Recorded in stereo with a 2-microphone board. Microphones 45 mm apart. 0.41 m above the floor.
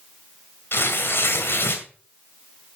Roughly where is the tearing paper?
Left.